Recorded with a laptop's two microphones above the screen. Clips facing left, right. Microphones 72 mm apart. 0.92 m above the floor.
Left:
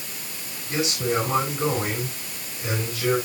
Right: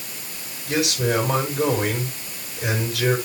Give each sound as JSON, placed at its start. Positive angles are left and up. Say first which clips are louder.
{"t": 0.7, "sound": "a man speaking", "louder": "right 3 dB", "side_deg": -70, "distance_m": 6.0}